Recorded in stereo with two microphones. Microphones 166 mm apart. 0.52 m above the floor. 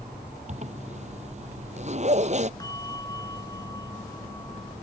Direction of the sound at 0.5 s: 45° right (ahead or behind).